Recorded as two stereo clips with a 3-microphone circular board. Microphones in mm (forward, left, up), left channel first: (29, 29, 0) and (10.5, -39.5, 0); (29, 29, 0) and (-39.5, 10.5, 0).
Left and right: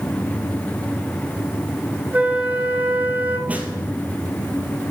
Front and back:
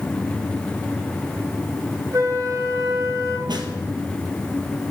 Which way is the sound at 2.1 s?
165° right.